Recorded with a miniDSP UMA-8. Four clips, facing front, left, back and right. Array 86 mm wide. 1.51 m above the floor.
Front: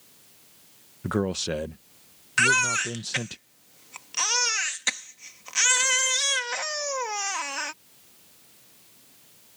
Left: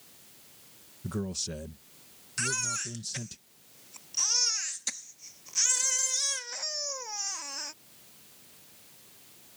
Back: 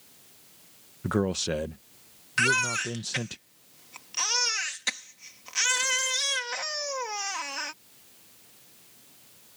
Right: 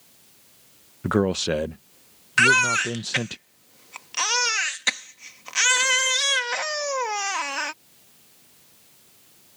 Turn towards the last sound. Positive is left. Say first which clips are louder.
# right 17 dB, front 3 dB
turn(degrees=-80)